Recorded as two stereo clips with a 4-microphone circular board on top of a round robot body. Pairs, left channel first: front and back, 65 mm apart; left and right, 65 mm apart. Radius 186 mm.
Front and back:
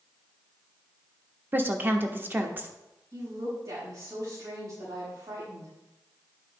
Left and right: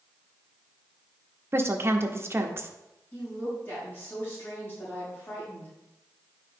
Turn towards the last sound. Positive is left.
turn(degrees=150)